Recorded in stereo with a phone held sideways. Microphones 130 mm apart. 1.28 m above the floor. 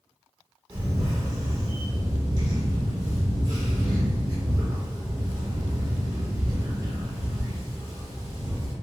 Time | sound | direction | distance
0.7 | a camera shutter | 30° right (ahead or behind) | 1.0 m